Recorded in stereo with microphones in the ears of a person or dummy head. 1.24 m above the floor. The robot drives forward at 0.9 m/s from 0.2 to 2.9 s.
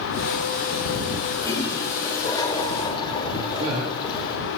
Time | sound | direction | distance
1.4 | a toilet flushing | 20° left (ahead or behind) | 4 m
3.4 | a man speaking | 35° right (ahead or behind) | 3.5 m